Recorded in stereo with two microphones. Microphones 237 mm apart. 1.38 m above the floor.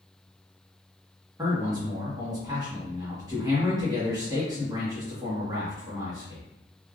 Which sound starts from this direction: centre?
A man speaking, at 1.4 s.